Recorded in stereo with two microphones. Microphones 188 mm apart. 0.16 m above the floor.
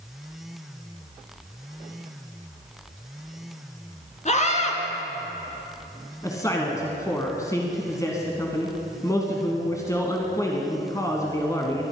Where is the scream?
40° left (ahead or behind), 2.5 m.